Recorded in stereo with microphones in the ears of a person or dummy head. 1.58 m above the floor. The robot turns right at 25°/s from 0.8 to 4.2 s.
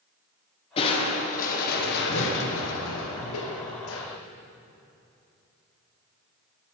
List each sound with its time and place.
0.8 s crushing: 30° left, 1.4 m; by 4.1 s 110° left, 1.4 m